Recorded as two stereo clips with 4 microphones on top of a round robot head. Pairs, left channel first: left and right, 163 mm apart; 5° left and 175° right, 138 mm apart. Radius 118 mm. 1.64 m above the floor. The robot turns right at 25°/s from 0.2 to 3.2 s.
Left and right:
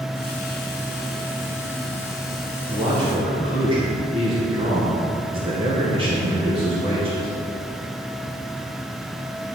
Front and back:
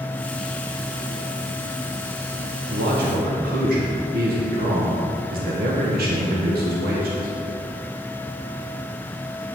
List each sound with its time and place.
2.7 s a man speaking: 165° right, 1.4 m; by 7.3 s 155° right, 1.4 m